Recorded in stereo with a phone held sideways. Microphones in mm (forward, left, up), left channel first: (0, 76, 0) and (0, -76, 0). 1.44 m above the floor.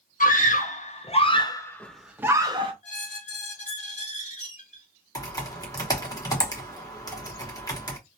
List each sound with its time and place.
0.2 s a scream: 60° left (ahead or behind), 1.1 m; by 2.7 s 35° right (ahead or behind), 0.7 m
2.8 s a squeak: 55° left (ahead or behind), 1.7 m
5.2 s typing on a keyboard: 25° left (ahead or behind), 0.9 m